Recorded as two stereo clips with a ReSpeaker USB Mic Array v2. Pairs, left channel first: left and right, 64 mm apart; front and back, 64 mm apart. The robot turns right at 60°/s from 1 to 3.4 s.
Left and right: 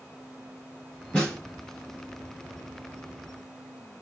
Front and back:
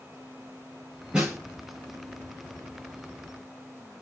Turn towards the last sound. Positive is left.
turn(degrees=-100)